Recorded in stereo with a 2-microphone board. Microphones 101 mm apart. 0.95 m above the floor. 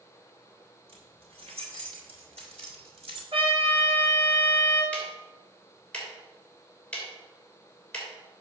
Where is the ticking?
15° left (ahead or behind), 3 m.